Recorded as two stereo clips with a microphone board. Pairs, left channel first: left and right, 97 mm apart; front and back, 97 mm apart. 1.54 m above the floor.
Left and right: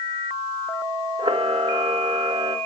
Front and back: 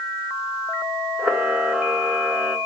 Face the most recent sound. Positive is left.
turn(degrees=-105)